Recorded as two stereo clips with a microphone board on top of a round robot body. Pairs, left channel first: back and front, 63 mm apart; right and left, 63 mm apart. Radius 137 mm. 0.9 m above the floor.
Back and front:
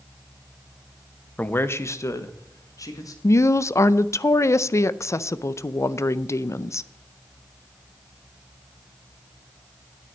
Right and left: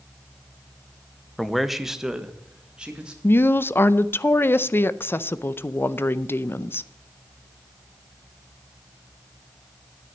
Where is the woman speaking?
145° right, 0.6 m.